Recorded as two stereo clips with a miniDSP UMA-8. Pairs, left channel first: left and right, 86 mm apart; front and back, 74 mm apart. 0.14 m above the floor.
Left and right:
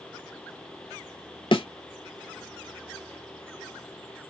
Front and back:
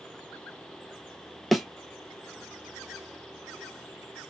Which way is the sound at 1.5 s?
90° left.